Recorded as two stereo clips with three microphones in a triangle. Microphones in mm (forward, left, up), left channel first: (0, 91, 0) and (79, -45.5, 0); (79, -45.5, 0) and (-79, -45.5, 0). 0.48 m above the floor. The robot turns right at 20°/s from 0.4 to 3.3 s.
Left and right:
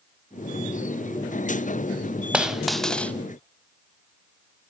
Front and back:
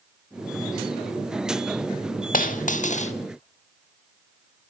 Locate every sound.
2.3 s a dropped coin: 25° left, 0.6 m; by 3.1 s 40° left, 0.6 m